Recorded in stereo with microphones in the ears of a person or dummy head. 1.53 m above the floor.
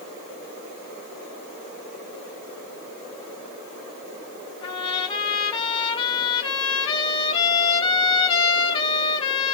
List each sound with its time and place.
4.6 s a trumpet: 30° left (ahead or behind), 3 m